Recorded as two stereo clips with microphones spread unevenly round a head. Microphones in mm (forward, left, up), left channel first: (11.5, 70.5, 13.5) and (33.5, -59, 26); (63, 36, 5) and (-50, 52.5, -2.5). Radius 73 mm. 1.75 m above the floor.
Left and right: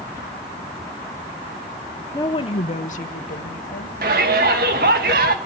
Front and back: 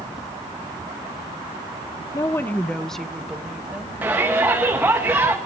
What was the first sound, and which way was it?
A woman speaking, 30° left.